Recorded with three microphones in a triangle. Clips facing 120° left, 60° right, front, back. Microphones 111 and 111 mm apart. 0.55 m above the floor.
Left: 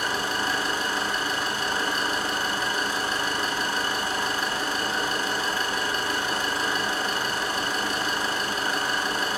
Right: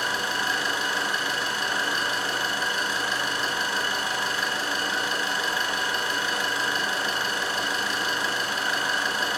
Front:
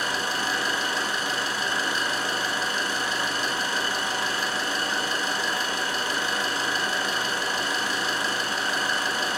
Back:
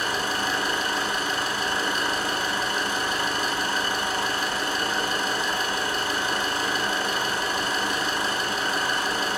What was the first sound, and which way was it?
An engine running, 155° left.